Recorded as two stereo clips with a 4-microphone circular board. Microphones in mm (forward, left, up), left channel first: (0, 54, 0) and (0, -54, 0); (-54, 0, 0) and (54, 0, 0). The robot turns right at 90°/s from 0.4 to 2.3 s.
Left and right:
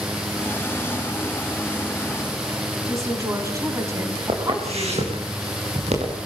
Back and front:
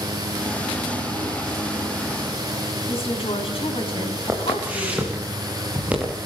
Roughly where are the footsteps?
Right.